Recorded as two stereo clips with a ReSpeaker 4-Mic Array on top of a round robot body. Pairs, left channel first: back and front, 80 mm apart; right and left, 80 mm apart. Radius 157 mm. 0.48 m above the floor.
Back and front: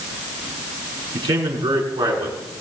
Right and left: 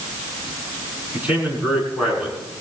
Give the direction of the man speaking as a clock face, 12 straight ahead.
11 o'clock.